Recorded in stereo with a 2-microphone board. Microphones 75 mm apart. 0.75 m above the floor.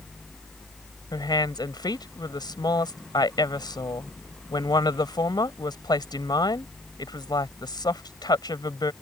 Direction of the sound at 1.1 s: 70° left (ahead or behind).